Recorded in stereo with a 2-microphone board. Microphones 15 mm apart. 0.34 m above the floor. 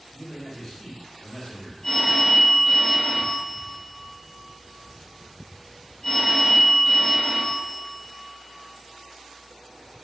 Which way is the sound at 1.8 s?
40° left (ahead or behind).